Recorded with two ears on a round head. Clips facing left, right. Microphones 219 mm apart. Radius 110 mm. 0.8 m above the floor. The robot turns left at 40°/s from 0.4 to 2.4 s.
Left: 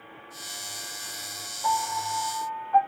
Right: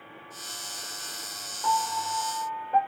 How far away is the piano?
About 2.0 m.